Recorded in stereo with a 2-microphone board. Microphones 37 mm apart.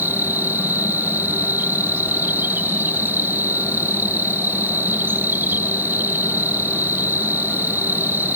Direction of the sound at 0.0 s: 70° right (ahead or behind).